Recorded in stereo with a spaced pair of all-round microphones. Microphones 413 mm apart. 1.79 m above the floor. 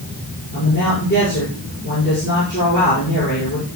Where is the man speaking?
25° left (ahead or behind), 6.5 m.